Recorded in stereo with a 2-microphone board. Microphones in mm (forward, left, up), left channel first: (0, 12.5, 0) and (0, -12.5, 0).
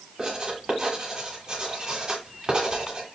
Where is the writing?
25° right (ahead or behind), 1.3 m.